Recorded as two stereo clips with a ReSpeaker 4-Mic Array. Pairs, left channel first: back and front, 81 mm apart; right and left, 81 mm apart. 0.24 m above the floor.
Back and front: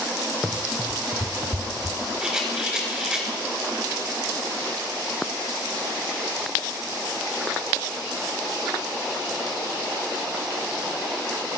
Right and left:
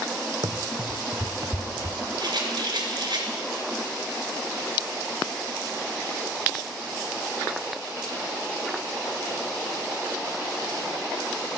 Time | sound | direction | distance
0.4 | running footsteps | 90° left | 0.7 m
2.2 | a rattle | 80° left | 2.5 m